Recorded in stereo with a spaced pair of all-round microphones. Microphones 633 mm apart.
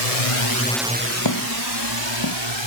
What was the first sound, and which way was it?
A drone, 70° left (ahead or behind).